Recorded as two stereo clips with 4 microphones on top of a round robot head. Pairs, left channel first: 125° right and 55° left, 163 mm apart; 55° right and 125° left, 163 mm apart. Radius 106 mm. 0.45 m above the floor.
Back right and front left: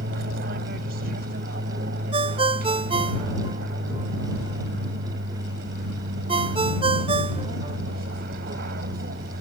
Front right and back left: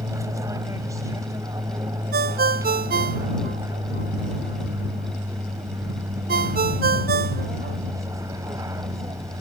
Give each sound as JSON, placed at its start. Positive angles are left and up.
{"t": 0.0, "sound": "an aircraft", "azimuth_deg": 60}
{"t": 2.1, "sound": "a ringtone", "azimuth_deg": 110}